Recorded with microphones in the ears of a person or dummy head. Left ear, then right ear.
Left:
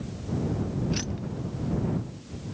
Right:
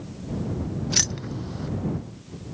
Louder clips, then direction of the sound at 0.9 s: Right 9 dB; 30° right (ahead or behind).